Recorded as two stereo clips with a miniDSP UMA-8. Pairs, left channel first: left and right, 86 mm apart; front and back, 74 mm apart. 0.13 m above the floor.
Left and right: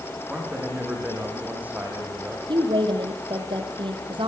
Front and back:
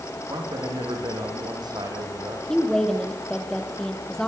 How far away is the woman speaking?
About 5 m.